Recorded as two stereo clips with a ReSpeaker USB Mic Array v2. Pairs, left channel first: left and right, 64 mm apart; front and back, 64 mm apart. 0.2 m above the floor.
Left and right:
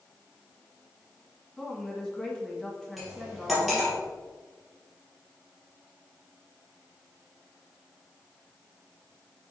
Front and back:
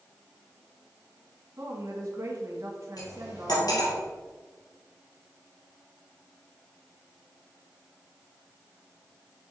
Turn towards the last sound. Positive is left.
turn(degrees=0)